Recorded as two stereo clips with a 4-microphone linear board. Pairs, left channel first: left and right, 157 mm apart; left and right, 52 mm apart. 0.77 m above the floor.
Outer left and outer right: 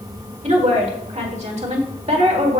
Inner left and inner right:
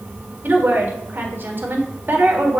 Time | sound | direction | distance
0.4 | a woman speaking | 45° right (ahead or behind) | 1.7 m